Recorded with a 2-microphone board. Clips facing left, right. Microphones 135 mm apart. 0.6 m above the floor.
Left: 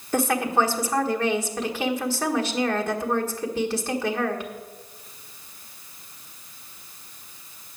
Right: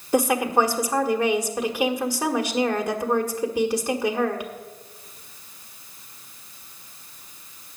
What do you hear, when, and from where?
0.1 s a woman speaking: 15° right (ahead or behind), 1.5 m